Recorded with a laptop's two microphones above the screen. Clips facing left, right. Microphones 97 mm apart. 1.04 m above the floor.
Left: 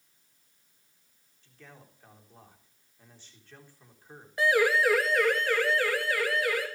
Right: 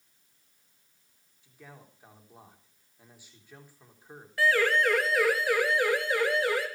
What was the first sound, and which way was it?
A man speaking, 10° right (ahead or behind).